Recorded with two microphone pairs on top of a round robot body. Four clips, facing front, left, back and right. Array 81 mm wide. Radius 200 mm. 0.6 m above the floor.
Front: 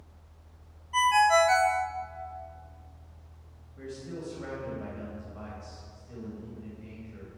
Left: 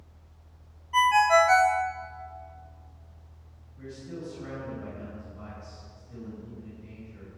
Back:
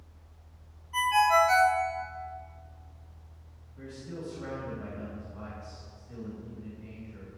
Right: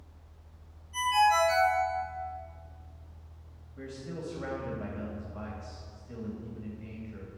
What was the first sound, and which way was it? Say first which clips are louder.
A ringtone: left 5 dB, front 1 dB; 75° left.